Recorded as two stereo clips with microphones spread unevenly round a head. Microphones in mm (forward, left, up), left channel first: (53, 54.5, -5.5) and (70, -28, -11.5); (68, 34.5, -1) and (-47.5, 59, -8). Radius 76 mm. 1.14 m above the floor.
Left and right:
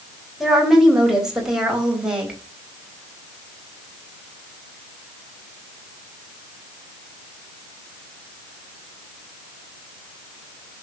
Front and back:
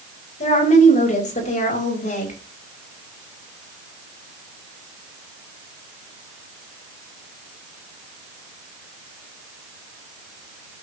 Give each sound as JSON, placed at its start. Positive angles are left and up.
{"t": 0.4, "sound": "a woman speaking", "azimuth_deg": 10, "distance_m": 4.5}